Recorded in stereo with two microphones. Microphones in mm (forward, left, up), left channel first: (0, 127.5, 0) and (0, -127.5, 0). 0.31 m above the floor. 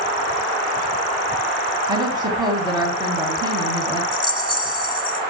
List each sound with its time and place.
1.9 s a woman speaking: 15° right (ahead or behind), 2.5 m
4.1 s a rattle: 20° right (ahead or behind), 3 m